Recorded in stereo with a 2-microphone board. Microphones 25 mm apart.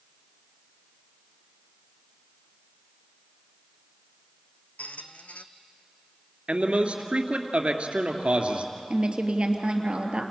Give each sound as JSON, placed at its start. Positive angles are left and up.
{"t": 4.8, "sound": "a squeak", "side_deg": 85, "distance_m": 1.1}
{"t": 6.5, "sound": "a man speaking", "side_deg": -55, "distance_m": 2.5}
{"t": 8.9, "sound": "a woman speaking", "side_deg": -40, "distance_m": 3.0}